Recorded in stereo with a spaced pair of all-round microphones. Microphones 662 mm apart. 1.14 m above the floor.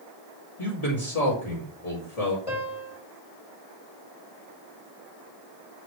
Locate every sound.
0.6 s a man speaking: 65° left (ahead or behind), 2.5 m
2.5 s a piano: 50° left (ahead or behind), 3 m